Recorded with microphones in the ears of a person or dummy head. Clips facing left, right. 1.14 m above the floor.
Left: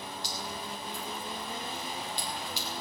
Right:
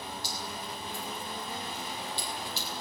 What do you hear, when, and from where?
0.2 s dripping: 20° left (ahead or behind), 2 m